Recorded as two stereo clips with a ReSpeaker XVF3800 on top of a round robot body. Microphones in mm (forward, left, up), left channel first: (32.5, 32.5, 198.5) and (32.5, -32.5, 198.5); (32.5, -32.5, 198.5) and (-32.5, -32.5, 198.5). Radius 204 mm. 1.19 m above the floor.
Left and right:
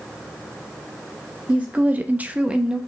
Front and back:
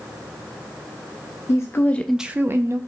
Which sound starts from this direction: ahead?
A woman speaking, at 1.5 s.